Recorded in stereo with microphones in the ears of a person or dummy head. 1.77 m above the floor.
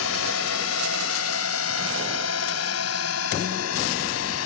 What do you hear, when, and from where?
0.0 s a drone: 85° left; by 4.5 s 75° left (ahead or behind)